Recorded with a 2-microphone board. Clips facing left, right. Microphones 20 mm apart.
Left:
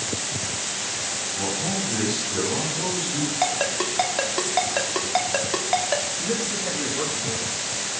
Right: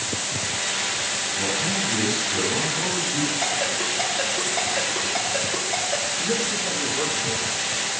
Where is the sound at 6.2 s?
5° left (ahead or behind), 2.5 m.